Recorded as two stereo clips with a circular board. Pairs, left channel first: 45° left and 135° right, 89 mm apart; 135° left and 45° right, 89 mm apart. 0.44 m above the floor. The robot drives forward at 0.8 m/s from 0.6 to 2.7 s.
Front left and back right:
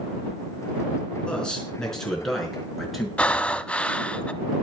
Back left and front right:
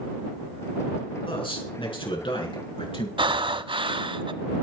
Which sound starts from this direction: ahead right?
Breathing, at 3.2 s.